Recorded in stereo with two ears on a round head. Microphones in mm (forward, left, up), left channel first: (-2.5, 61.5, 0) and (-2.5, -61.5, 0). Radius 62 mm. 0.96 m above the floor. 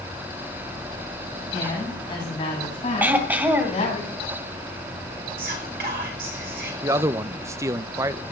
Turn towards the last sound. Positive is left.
turn(degrees=-20)  # may be behind; listen again after turning